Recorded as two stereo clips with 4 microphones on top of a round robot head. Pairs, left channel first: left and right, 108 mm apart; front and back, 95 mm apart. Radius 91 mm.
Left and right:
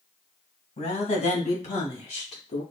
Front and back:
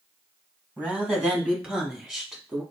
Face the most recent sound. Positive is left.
turn(degrees=95)